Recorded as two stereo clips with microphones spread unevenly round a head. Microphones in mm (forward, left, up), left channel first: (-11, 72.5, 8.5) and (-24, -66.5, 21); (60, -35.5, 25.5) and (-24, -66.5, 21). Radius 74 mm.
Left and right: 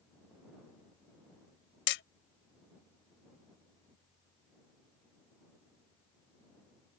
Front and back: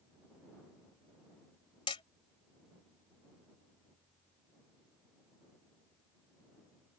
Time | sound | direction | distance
1.9 | hammering | 80° left | ?